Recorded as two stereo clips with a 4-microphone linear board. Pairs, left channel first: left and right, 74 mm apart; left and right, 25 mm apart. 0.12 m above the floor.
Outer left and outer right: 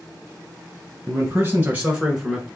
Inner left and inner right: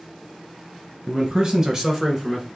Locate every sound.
1.1 s a man speaking: 30° right (ahead or behind), 1.9 m; by 2.5 s centre (ahead or behind), 1.4 m